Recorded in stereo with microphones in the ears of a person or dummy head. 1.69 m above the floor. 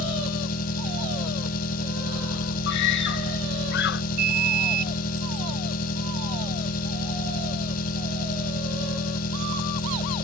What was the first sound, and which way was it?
An engine running, 50° left (ahead or behind).